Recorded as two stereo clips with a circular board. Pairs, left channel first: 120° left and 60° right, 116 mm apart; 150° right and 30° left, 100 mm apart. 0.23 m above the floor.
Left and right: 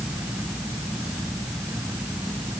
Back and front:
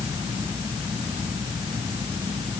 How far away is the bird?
I don't hear a bird.